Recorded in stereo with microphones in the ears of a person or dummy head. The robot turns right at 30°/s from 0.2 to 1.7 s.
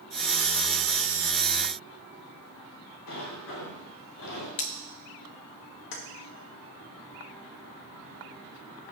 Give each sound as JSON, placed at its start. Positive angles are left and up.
{"t": 3.1, "sound": "a sliding door", "side_deg": 75, "distance_m": 4.0}
{"t": 4.6, "sound": "cutlery clinking", "side_deg": 40, "distance_m": 0.7}
{"t": 5.9, "sound": "keys jangling", "side_deg": 70, "distance_m": 2.0}